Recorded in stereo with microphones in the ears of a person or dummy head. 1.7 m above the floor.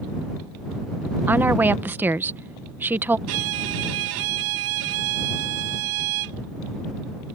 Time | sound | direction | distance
1.3 | a woman speaking | 5° right (ahead or behind) | ?
3.3 | a violin | 70° right (ahead or behind) | ?